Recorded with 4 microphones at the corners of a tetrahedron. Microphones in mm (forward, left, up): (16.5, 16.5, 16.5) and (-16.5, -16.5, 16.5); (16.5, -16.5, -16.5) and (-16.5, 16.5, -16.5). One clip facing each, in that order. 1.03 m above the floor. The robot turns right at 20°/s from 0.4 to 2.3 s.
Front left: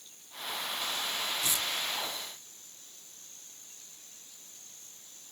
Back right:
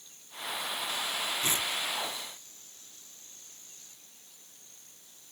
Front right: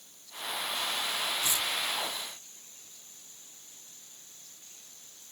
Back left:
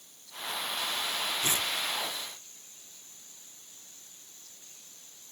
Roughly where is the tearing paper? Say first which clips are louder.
Back right 2 dB, back left 1 dB; behind.